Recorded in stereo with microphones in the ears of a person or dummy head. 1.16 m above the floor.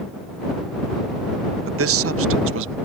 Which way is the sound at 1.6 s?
65° right (ahead or behind).